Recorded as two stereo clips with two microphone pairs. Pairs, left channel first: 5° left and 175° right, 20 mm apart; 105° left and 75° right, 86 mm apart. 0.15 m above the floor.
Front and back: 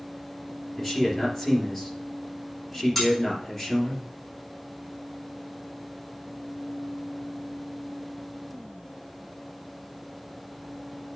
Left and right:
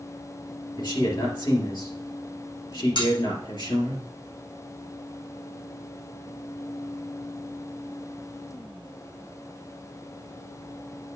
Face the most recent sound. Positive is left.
turn(degrees=95)